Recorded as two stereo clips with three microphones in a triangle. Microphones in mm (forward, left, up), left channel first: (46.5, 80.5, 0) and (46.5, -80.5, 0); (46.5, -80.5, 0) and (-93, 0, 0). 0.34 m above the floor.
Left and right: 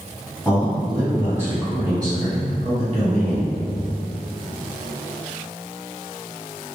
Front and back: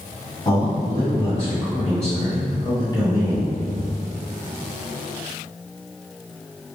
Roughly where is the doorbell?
I don't hear a doorbell.